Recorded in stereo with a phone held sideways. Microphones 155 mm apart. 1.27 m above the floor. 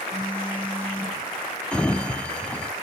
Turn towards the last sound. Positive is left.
turn(degrees=10)  # may be behind; listen again after turning